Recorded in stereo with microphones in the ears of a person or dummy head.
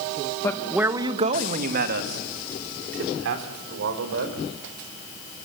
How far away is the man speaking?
About 1.2 m.